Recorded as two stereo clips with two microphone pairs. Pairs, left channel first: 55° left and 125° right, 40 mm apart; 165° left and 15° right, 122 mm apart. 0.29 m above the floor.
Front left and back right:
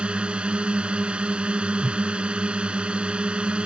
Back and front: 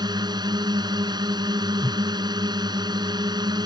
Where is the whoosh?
70° right.